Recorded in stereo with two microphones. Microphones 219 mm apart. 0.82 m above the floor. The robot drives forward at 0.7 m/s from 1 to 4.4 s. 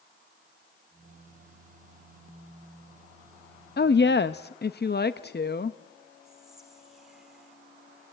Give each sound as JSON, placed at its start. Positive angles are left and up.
{"t": 3.8, "sound": "a woman speaking", "side_deg": 50, "distance_m": 0.6}
{"t": 6.2, "sound": "whispering", "side_deg": 0, "distance_m": 3.0}